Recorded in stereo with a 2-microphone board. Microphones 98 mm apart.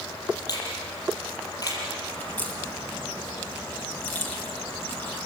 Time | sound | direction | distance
0.5 | a finger snap | 40° left (ahead or behind) | 7 m
2.2 | a crack | 20° left (ahead or behind) | 4.5 m